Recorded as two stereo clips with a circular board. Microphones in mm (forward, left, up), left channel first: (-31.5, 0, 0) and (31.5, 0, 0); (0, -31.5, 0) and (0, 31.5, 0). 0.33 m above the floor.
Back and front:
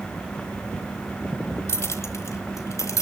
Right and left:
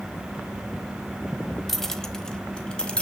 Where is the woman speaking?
No woman speaking in this recording.